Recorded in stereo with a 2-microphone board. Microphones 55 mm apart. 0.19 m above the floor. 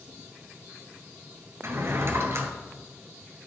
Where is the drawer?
55° right (ahead or behind), 1.1 m.